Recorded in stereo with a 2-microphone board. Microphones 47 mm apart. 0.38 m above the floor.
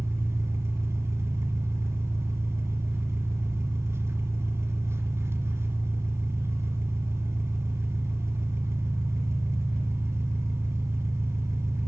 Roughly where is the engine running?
Right.